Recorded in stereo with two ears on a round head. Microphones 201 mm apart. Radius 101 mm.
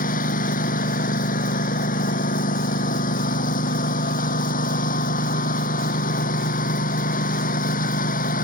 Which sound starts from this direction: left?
A lawn mower, at 0.0 s.